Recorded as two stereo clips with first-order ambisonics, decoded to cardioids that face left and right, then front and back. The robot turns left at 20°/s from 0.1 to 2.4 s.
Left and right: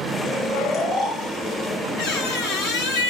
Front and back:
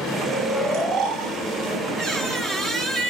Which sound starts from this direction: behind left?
Snoring, at 0.2 s.